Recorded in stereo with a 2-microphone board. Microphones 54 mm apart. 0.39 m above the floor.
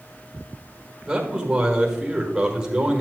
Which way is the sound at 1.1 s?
10° right (ahead or behind).